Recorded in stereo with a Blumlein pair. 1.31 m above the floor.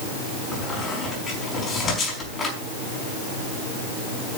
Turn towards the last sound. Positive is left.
turn(degrees=15)